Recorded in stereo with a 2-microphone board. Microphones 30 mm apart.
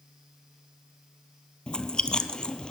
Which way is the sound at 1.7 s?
30° left (ahead or behind).